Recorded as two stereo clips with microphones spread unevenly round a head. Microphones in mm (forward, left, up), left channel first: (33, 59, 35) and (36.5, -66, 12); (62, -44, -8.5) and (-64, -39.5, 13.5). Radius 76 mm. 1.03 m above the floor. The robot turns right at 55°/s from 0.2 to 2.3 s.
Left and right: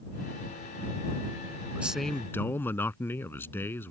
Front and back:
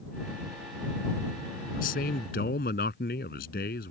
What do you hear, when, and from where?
1.7 s a man speaking: 10° right; by 3.9 s 20° left